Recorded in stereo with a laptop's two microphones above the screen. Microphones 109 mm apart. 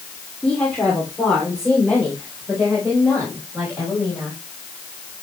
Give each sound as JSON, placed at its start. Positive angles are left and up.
{"t": 0.4, "sound": "a woman speaking", "side_deg": 10, "distance_m": 3.0}